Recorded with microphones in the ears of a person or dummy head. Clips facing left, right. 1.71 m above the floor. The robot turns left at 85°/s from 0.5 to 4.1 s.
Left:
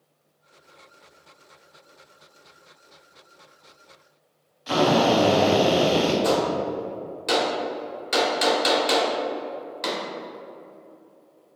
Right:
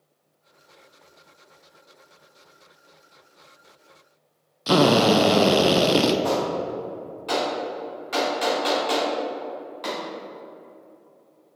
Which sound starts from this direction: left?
A gunshot, at 6.2 s.